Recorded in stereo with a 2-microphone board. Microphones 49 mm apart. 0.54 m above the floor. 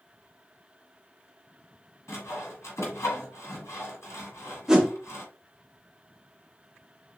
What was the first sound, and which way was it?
Sawing, 80° left.